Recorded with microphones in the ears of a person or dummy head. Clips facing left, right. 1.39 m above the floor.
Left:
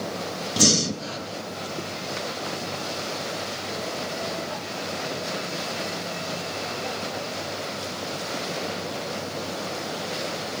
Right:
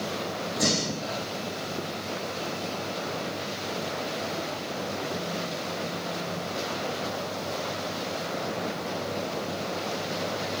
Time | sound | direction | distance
0.6 | breathing | 40° left (ahead or behind) | 0.8 m